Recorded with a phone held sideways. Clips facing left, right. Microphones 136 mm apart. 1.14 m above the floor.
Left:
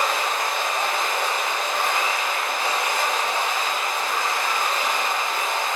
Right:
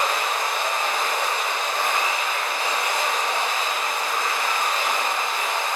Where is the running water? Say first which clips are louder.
Even; 65° left (ahead or behind), 0.8 m.